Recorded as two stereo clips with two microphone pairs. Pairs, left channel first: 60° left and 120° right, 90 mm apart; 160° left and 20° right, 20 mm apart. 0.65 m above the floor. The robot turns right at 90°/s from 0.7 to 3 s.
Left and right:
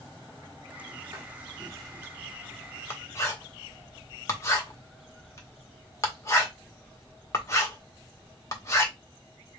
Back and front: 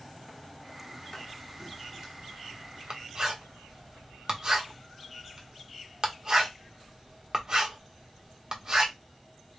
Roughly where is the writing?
Behind right.